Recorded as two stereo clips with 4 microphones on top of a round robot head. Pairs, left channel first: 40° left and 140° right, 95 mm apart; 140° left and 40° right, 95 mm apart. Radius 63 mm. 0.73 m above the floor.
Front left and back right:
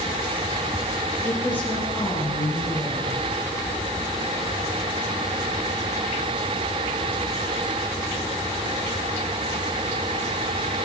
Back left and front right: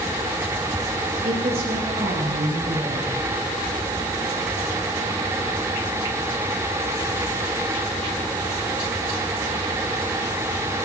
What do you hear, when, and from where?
1.2 s a woman speaking: 30° right, 5 m; by 3.1 s 15° right, 5 m